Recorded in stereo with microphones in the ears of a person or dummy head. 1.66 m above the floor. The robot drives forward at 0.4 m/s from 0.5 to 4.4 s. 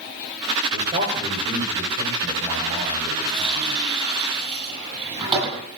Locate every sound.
0.7 s a man speaking: 35° right (ahead or behind), 6.5 m; by 3.8 s 30° right (ahead or behind), 7.5 m
3.3 s a running tap: 25° right (ahead or behind), 9 m; by 5.7 s 30° right (ahead or behind), 8.5 m